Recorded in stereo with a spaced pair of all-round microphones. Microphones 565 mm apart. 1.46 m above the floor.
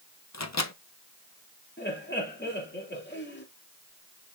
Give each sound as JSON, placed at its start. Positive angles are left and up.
{"t": 0.3, "sound": "a microwave", "side_deg": 30, "distance_m": 0.8}
{"t": 1.8, "sound": "laughter", "side_deg": 20, "distance_m": 3.0}